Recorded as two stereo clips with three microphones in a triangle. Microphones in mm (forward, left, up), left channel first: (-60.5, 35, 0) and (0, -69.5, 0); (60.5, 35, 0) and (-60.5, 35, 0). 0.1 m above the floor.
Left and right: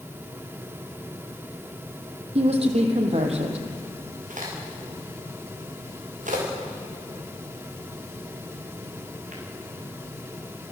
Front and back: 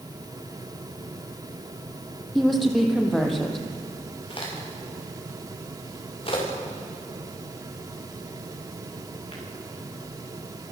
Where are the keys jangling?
I don't hear keys jangling.